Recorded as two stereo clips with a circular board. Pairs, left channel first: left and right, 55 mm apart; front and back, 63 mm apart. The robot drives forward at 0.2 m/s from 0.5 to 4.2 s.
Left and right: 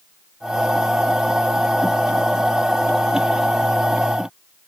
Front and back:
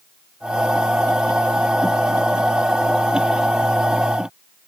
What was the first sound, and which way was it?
Only background noise.